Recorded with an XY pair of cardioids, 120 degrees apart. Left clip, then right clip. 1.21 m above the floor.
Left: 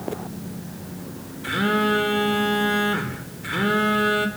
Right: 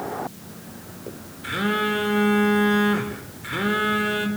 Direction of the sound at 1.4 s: 5° left.